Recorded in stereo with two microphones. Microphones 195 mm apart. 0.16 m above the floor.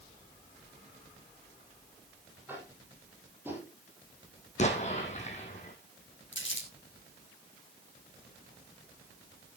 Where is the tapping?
10° right (ahead or behind), 6 m.